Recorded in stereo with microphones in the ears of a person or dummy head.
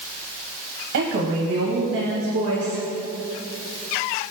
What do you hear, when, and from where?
0.9 s a woman speaking: 65° right (ahead or behind), 1.3 m; by 2.8 s 60° right (ahead or behind), 3 m